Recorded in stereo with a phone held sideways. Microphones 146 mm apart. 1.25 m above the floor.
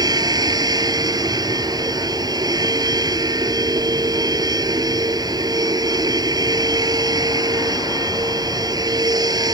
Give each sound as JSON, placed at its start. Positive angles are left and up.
{"t": 0.0, "sound": "a machine running", "side_deg": -30}